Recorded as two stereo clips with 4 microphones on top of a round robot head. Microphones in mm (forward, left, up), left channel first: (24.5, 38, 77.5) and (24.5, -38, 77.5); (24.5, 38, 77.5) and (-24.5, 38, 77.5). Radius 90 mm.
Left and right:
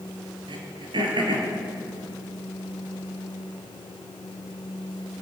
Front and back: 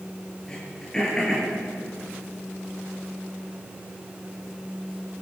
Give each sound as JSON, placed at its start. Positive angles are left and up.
{"t": 0.5, "sound": "throat clearing", "azimuth_deg": -80, "distance_m": 5.0}